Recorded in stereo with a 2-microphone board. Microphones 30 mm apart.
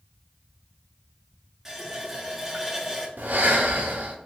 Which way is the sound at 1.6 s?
15° right (ahead or behind).